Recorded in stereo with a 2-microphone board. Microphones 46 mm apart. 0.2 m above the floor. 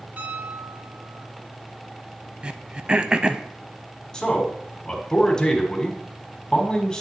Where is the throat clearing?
20° right (ahead or behind), 0.5 m.